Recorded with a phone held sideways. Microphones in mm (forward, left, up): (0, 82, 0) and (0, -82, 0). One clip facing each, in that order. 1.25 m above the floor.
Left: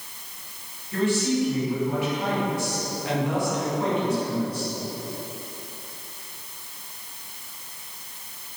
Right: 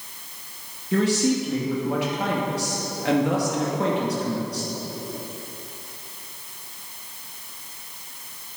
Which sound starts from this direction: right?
A man speaking, at 0.9 s.